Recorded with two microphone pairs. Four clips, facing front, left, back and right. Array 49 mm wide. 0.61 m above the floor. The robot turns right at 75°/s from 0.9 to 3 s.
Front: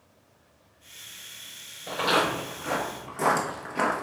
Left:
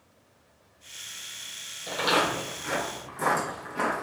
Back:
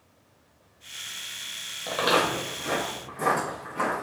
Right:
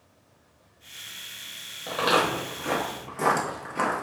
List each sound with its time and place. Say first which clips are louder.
1.9 s footsteps: right 2 dB, back 1 dB; 165° right, 1.3 m; by 4.0 s straight ahead, 0.7 m